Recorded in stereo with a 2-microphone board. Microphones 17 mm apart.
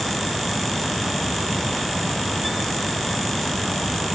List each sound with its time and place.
Only background noise.